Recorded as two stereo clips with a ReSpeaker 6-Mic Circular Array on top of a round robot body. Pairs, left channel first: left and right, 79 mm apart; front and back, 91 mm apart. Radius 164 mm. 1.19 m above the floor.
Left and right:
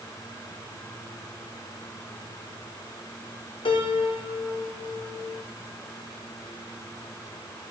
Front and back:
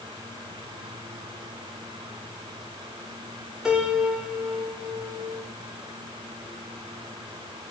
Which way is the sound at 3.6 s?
95° left.